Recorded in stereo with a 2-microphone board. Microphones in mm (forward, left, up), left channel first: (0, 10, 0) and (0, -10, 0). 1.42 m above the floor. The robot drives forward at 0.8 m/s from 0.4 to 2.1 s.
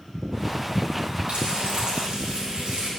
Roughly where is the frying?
Right.